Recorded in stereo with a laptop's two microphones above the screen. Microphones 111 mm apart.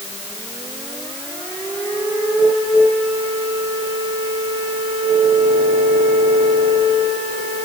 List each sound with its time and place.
Only background noise.